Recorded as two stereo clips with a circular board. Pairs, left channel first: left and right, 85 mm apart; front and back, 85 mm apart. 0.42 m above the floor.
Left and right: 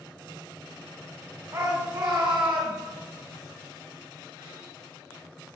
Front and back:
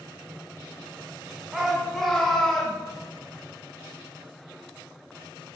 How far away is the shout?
About 1.0 m.